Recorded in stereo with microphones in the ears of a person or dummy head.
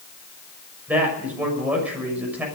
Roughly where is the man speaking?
Centre.